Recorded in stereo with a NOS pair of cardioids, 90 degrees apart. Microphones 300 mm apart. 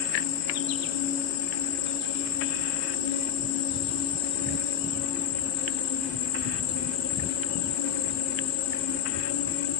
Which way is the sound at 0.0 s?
65° left.